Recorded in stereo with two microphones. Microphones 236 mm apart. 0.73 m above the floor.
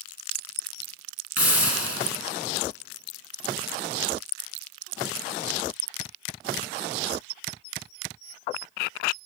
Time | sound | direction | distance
1.4 | a hiss | 80° left | 2.0 m